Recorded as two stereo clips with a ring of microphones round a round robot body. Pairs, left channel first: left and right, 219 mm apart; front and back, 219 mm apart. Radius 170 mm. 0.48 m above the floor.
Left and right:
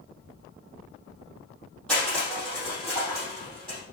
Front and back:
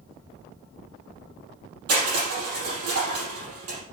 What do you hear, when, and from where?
1.9 s crushing: straight behind, 4.5 m